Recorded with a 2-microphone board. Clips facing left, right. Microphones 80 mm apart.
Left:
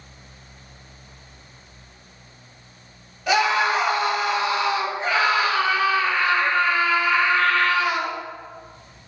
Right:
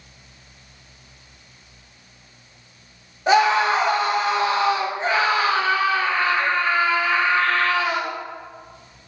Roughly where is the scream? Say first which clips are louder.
Right 3 dB; right.